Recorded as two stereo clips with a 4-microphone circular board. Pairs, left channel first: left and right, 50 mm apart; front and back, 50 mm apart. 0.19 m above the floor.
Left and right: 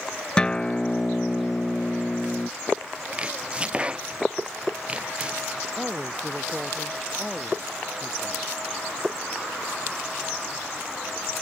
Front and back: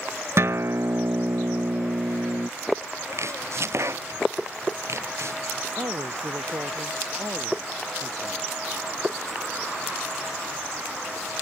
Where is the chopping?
160° right.